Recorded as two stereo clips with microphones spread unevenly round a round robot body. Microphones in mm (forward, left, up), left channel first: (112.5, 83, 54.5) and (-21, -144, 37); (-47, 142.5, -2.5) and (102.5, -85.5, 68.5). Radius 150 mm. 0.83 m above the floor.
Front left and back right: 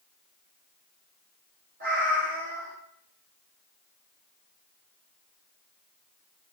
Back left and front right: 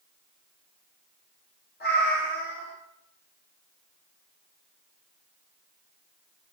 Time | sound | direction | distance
1.8 | a cat meowing | straight behind | 0.6 m